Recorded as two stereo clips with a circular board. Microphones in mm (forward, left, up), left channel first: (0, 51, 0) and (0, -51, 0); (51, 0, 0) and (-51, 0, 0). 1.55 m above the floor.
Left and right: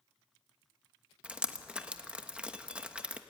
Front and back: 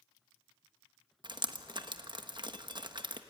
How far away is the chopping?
No chopping in this recording.